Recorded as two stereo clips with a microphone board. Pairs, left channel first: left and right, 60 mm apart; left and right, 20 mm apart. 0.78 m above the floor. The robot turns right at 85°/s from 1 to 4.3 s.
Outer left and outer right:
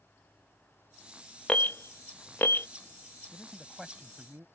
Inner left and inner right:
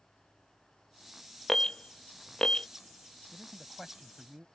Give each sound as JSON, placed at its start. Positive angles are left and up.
{"t": 1.5, "sound": "an alarm", "side_deg": 20}
{"t": 3.3, "sound": "a man speaking", "azimuth_deg": 145}